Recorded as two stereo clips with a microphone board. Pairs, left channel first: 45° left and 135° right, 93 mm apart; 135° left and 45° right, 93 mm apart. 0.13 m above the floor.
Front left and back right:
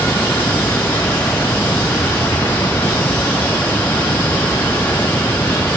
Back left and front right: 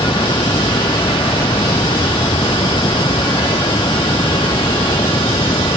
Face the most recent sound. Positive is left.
turn(degrees=115)